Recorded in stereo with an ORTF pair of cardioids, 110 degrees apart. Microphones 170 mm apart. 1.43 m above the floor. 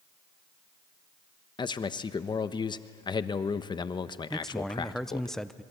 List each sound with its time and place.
1.6 s a man speaking: 25° left, 1.0 m
4.3 s a man speaking: straight ahead, 0.8 m